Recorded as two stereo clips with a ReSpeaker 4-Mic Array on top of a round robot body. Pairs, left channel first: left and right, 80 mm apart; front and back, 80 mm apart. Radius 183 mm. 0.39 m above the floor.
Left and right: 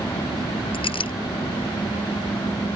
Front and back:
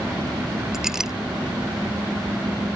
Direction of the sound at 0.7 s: 95° left.